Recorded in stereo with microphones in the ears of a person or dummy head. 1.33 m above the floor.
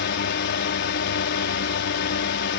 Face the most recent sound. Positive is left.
turn(degrees=55)  # may be behind; listen again after turning